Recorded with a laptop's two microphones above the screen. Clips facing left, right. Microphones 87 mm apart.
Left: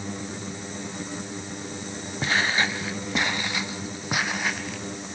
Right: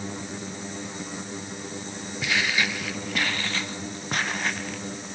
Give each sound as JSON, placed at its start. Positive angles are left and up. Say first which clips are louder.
{"t": 2.2, "sound": "footsteps", "louder": "left 2 dB", "side_deg": 35, "distance_m": 1.1}